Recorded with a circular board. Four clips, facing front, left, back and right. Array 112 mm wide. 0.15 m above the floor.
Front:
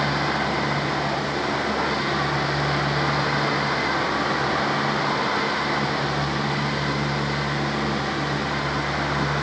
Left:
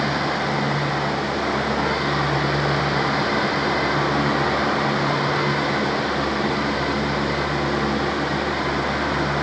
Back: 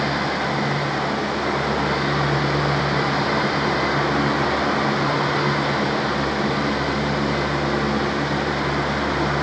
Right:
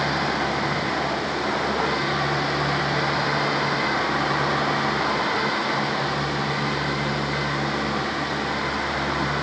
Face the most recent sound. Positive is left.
No sound to turn to.